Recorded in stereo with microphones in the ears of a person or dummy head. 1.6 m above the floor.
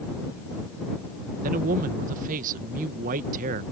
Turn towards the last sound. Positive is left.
turn(degrees=-50)  # may be behind; listen again after turning